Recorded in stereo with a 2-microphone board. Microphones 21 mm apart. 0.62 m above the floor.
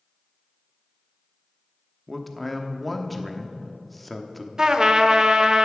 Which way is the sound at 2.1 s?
5° left (ahead or behind).